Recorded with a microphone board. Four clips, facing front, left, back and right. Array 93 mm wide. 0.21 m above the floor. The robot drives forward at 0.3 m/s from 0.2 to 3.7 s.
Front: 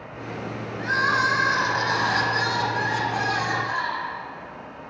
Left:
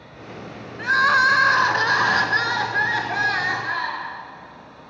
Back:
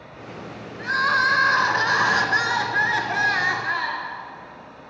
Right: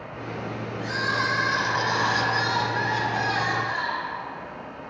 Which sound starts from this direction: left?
Crying, at 0.8 s.